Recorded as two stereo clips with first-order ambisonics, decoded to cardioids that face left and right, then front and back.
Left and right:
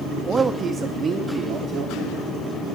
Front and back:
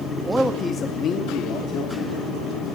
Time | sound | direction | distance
0.2 | a man speaking | 145° right | 0.5 m